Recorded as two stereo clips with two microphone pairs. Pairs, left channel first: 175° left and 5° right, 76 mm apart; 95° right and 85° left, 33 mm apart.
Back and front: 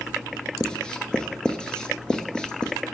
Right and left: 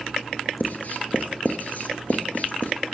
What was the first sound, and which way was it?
Writing, 110° right.